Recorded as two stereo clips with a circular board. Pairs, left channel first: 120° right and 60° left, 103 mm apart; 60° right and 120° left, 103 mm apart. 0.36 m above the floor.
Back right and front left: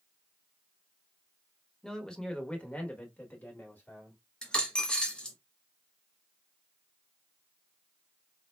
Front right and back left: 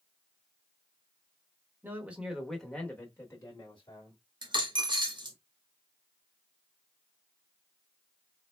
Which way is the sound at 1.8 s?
160° left.